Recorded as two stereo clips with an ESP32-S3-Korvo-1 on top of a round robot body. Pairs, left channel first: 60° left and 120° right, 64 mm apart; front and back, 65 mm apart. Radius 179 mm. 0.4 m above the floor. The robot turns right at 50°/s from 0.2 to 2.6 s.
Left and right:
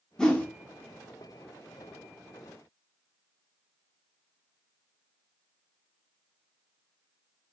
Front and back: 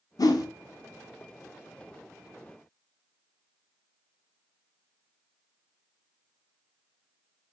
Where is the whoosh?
20° right, 0.5 m; by 0.5 s 5° right, 0.5 m.